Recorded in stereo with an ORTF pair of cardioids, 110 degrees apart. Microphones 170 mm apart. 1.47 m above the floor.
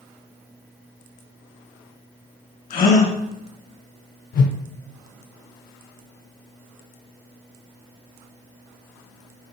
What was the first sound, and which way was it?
A gasp, 60° left.